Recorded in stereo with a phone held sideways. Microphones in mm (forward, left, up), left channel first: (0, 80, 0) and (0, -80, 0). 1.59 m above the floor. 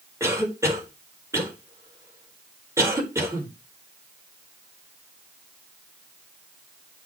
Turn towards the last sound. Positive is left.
turn(degrees=-15)  # may be behind; listen again after turning